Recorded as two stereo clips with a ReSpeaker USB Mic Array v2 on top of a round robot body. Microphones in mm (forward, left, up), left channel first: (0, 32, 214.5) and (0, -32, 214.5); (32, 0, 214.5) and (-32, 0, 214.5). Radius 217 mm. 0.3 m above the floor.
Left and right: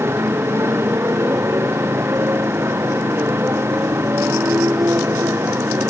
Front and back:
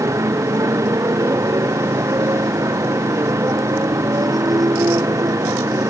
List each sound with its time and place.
0.0 s a motorcycle: 140° right